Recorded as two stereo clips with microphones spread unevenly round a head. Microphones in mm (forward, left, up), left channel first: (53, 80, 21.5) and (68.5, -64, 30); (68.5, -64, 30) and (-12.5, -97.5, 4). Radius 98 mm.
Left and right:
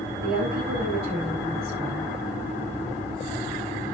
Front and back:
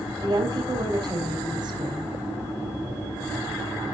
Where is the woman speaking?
125° right, 4.5 m.